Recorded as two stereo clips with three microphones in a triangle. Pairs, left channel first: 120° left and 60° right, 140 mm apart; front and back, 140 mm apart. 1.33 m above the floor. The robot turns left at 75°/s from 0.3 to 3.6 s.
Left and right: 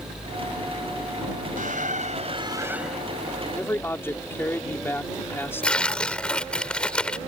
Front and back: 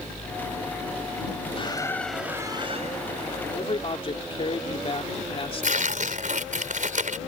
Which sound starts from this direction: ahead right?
A squeak, at 1.6 s.